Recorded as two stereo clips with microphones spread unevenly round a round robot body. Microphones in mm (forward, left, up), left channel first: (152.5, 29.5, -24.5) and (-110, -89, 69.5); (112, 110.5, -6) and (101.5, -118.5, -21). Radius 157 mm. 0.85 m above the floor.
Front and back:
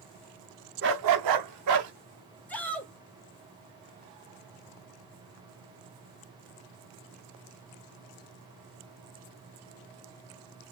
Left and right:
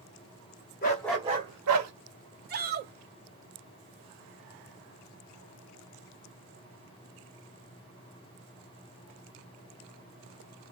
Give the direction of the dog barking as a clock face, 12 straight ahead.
7 o'clock.